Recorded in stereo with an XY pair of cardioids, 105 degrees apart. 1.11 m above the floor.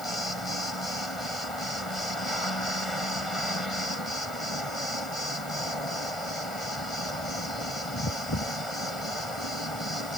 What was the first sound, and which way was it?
Only background noise.